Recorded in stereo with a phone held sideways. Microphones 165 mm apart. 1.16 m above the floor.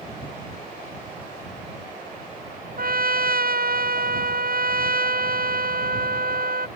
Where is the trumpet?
70° right (ahead or behind).